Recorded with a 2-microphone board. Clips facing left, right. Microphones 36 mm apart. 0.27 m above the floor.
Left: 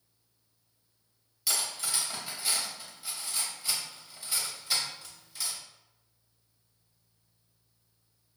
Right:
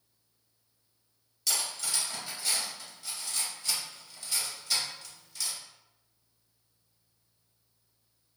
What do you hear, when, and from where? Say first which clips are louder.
1.5 s cutlery clinking: even; 15° left (ahead or behind), 0.7 m